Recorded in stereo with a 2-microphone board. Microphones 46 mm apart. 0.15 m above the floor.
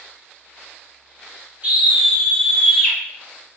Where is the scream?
35° right (ahead or behind), 1.2 m; by 3.0 s 5° left (ahead or behind), 1.0 m.